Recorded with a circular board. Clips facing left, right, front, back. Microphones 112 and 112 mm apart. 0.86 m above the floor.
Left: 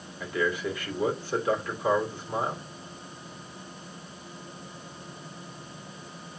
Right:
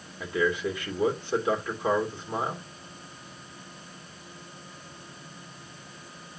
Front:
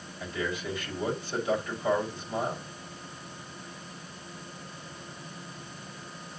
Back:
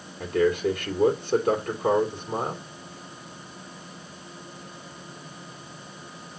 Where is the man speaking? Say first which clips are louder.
Right 2 dB, back 11 dB; 160° right, 2.5 m.